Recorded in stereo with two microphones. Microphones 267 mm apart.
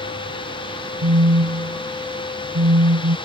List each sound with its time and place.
1.0 s a phone buzzing: 75° right (ahead or behind)